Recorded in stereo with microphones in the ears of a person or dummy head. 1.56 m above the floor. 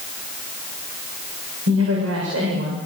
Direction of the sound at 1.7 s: 90° right.